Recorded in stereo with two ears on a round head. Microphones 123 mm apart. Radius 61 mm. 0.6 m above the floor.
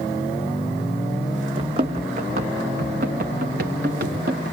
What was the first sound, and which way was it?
Running footsteps, 40° right (ahead or behind).